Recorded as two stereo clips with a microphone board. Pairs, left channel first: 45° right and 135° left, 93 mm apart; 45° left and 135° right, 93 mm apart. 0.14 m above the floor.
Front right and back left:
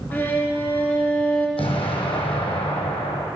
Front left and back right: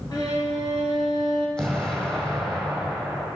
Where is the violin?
25° left, 1.9 m.